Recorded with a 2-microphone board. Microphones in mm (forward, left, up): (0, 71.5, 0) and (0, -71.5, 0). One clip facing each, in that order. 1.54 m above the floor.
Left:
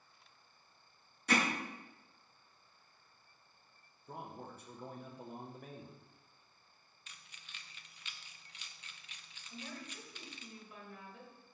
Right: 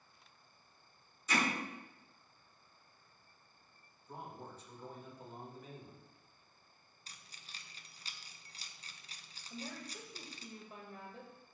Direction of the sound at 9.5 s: 30° right (ahead or behind).